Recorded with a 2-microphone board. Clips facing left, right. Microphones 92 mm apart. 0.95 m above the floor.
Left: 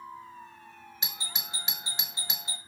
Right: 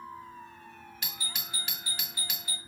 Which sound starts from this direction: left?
A doorbell, at 1.0 s.